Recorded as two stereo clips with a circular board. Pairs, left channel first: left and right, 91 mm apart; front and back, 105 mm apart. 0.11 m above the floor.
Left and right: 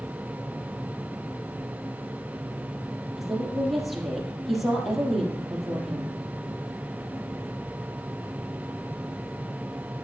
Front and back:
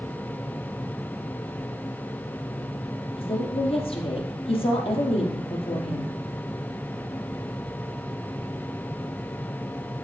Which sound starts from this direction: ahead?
A woman speaking, at 3.2 s.